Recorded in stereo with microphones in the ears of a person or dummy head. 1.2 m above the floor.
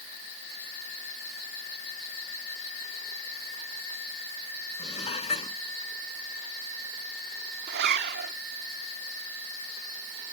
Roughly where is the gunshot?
I don't hear a gunshot.